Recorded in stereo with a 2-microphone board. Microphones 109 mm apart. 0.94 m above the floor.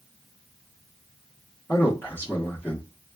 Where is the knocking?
I don't hear knocking.